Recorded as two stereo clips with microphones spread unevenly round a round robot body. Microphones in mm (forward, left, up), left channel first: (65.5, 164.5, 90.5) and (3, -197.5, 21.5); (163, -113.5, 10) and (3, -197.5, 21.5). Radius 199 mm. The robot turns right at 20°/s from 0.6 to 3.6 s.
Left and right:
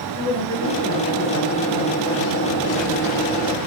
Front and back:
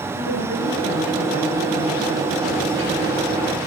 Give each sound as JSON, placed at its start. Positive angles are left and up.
{"t": 0.1, "sound": "a woman speaking", "azimuth_deg": 165, "distance_m": 5.5}